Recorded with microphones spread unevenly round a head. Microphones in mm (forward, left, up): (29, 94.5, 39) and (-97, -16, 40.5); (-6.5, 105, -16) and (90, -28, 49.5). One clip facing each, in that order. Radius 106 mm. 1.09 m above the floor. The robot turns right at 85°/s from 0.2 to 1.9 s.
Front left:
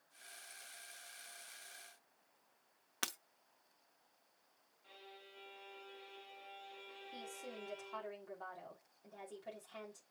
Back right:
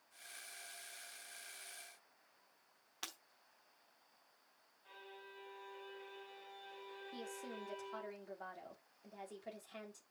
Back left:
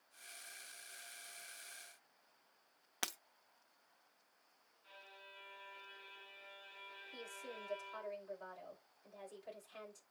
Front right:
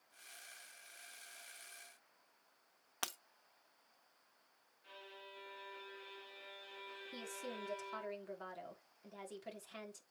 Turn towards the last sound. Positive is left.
turn(degrees=-60)